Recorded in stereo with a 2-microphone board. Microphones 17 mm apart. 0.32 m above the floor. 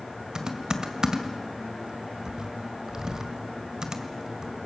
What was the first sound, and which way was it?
Typing on a keyboard, 40° right (ahead or behind).